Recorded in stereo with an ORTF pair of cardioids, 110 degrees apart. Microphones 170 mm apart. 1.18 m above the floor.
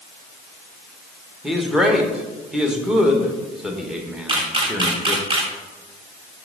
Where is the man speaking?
5° right, 1.3 m.